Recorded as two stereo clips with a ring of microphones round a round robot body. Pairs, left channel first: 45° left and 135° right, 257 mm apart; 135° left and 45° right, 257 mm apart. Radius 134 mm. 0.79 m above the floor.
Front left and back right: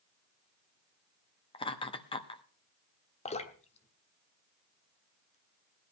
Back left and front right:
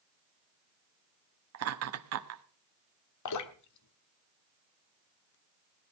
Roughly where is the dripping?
Left.